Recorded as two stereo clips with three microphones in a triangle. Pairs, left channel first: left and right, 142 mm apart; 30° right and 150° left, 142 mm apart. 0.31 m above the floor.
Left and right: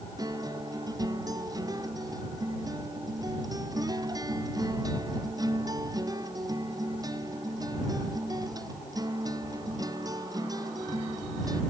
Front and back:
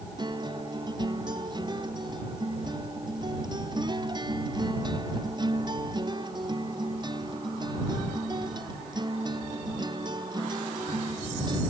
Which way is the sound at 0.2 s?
150° right.